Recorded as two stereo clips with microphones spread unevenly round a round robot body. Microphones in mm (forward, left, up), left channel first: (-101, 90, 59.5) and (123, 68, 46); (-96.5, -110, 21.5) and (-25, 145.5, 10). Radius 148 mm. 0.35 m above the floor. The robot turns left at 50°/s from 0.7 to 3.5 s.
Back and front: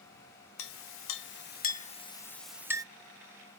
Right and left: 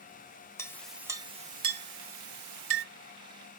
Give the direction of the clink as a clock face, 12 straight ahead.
6 o'clock.